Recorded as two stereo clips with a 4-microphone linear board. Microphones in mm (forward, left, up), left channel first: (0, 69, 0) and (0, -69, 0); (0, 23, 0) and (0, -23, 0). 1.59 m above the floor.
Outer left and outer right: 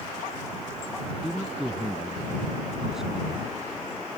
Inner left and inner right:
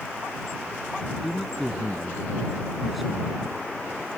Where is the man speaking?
5° right (ahead or behind).